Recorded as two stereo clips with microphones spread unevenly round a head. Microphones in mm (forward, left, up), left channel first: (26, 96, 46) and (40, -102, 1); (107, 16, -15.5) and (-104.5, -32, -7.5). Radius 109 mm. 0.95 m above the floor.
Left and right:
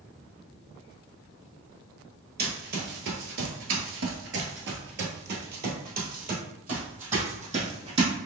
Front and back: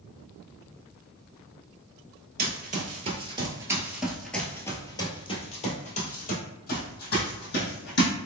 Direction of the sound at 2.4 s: 135° right.